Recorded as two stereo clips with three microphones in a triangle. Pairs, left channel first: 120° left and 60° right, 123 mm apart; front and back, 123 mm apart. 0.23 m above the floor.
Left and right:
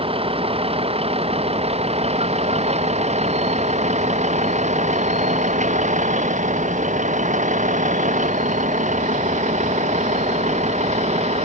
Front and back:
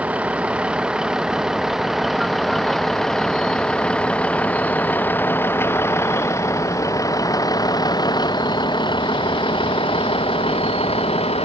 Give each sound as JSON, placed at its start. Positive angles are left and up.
{"t": 0.0, "sound": "a vehicle", "azimuth_deg": -100}